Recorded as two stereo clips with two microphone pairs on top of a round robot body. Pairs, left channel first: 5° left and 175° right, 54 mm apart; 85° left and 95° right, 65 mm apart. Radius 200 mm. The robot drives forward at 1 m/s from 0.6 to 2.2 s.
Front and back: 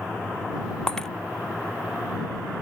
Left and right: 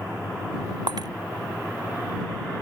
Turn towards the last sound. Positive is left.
turn(degrees=-85)